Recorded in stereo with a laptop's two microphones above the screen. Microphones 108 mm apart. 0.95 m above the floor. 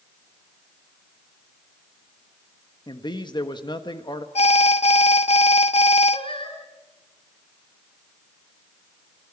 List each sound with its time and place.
2.9 s a man speaking: 45° left (ahead or behind), 1.4 m
4.3 s an alarm: 80° left, 0.8 m
6.1 s singing: 55° left (ahead or behind), 3.5 m